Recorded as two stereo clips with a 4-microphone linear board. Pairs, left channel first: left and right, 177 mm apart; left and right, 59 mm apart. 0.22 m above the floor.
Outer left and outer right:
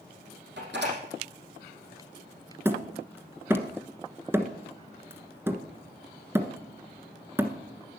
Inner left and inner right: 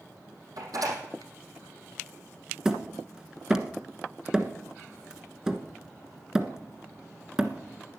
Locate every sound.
0.6 s a door slam: 85° right, 5 m
2.6 s hammering: 15° right (ahead or behind), 1.3 m